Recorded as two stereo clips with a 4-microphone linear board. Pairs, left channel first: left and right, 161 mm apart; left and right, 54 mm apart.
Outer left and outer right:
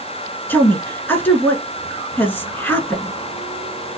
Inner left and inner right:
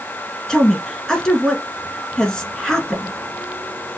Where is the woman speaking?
15° left (ahead or behind), 1.2 m.